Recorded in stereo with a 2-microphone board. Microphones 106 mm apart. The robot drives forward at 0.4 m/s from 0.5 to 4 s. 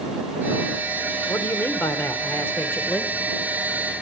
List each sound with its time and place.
1.3 s a man speaking: 25° left (ahead or behind), 1.1 m; by 3.1 s 20° left (ahead or behind), 1.4 m